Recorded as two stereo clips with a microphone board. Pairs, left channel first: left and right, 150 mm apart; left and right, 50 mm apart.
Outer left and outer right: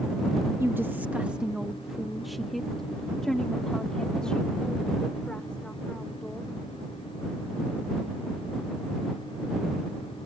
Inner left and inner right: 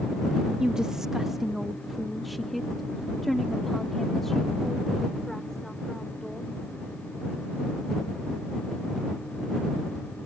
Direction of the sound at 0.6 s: 15° right (ahead or behind).